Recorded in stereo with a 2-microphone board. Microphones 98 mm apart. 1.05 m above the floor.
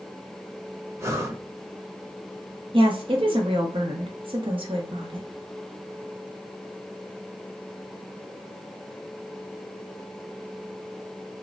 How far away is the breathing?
About 0.6 m.